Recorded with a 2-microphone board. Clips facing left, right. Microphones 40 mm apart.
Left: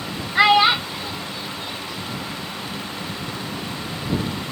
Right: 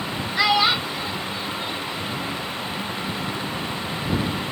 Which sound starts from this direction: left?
A child speaking, at 0.3 s.